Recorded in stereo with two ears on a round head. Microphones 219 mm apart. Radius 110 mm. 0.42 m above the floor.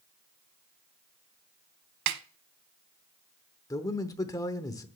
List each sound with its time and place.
2.1 s a snare drum: 80° right, 0.9 m
3.7 s a man speaking: 15° left (ahead or behind), 0.8 m